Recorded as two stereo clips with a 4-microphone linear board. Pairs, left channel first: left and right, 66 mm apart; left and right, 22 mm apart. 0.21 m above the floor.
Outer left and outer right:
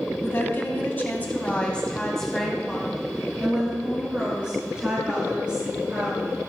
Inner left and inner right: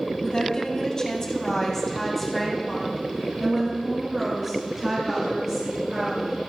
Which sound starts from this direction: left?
A woman speaking, at 0.2 s.